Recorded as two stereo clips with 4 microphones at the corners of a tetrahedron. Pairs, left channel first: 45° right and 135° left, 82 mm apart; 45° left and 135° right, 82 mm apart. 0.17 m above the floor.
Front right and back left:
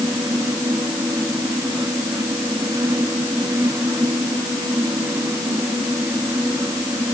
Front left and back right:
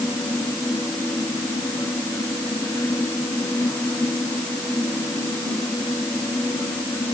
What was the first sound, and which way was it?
Only background noise.